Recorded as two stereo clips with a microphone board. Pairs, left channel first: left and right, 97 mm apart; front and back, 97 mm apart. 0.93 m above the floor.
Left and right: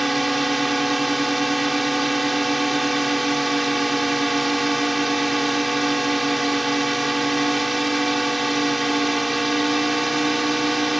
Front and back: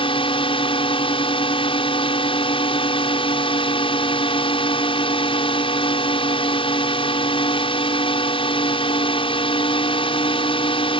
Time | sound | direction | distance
0.0 | a drone | straight ahead | ?